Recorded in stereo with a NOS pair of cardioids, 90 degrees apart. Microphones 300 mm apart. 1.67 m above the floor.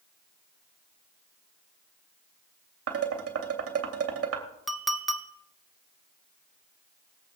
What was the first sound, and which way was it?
Dishes clattering, 50° right.